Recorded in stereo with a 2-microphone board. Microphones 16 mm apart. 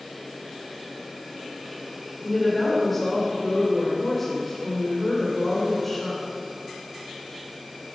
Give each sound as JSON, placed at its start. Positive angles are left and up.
{"t": 2.2, "sound": "a woman speaking", "side_deg": 10, "distance_m": 4.0}